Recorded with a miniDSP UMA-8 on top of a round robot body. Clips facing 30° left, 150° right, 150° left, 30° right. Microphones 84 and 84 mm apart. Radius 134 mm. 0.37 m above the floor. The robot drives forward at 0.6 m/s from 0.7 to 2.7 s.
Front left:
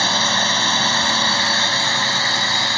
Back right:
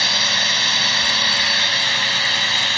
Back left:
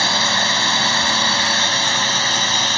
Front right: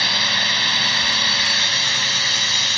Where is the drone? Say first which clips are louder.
Front left 4 dB, back left 4 dB; 90° left; by 2.8 s 100° left.